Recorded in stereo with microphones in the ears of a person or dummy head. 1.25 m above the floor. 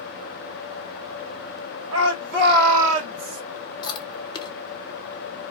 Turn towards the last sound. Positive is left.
turn(degrees=30)  # may be behind; listen again after turning